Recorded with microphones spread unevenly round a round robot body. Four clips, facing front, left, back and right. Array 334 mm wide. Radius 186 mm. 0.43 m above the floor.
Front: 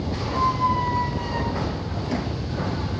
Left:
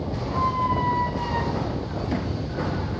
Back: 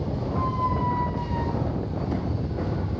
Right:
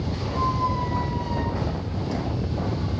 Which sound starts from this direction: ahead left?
A squeak, at 0.3 s.